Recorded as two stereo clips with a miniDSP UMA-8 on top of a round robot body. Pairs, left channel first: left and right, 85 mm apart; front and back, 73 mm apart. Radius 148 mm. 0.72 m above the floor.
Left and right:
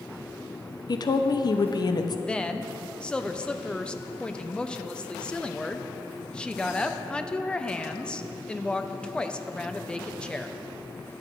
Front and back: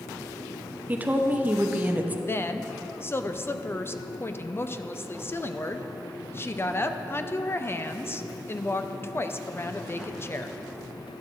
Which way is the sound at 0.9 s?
115° left.